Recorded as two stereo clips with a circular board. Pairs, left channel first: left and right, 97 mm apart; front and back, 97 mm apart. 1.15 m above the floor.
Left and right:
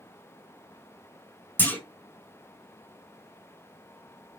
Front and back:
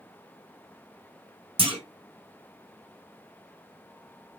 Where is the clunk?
160° left, 1.1 m.